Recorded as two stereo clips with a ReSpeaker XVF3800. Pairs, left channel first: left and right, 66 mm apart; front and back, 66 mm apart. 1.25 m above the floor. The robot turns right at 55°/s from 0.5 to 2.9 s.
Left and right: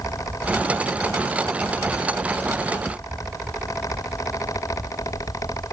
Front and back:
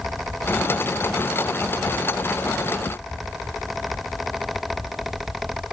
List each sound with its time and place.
Only background noise.